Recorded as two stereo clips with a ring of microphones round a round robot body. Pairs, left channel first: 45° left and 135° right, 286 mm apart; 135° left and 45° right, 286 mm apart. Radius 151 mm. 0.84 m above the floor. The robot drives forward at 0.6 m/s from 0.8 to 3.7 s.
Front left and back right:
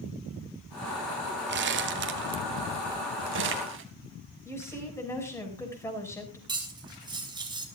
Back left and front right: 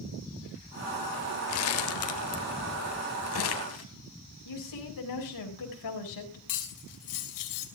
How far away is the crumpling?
About 1.1 m.